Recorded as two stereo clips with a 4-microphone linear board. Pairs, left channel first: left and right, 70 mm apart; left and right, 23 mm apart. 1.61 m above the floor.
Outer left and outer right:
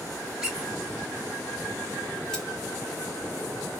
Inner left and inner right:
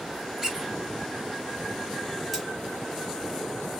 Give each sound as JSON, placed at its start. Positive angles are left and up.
{"t": 0.4, "sound": "a squeak", "side_deg": -10, "distance_m": 2.0}
{"t": 2.3, "sound": "cutlery clinking", "side_deg": 10, "distance_m": 1.3}